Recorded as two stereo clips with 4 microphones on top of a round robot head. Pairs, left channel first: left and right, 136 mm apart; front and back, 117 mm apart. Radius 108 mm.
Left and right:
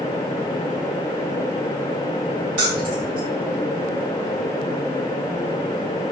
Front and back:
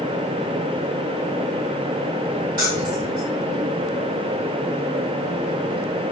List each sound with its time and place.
2.6 s keys jangling: 125° right, 5.5 m